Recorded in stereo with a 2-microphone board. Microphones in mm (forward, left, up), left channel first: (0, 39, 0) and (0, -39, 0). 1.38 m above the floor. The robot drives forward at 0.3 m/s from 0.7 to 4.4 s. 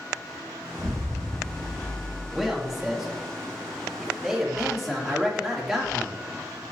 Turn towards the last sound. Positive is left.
turn(degrees=0)  # may be behind; listen again after turning